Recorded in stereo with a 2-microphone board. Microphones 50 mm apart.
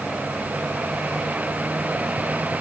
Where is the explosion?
No explosion in this recording.